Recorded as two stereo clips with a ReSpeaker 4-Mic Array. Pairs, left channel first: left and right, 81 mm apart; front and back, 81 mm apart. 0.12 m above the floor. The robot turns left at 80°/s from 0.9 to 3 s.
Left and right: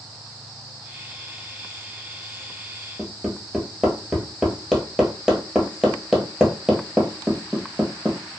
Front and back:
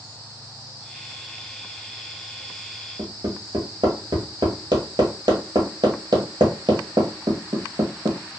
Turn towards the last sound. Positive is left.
turn(degrees=-175)